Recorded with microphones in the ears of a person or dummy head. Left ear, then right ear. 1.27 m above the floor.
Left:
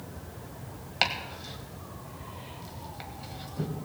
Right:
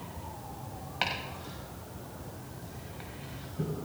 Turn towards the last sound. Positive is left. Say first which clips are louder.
# left 4 dB
turn(degrees=30)  # may be behind; listen again after turning